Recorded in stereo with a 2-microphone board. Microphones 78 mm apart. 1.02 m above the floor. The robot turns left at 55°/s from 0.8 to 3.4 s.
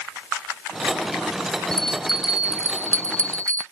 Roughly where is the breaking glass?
I don't hear breaking glass.